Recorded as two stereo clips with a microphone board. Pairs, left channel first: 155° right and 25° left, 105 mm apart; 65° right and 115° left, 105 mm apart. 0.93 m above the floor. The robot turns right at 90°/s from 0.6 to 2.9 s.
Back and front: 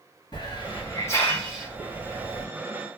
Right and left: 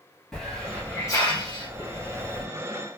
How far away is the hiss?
About 1.1 m.